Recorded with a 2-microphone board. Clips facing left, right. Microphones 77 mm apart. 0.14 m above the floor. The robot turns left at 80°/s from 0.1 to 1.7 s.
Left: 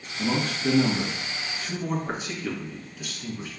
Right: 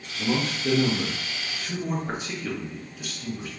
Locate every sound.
0.2 s a man speaking: 125° left, 1.5 m; by 3.5 s 5° left, 1.5 m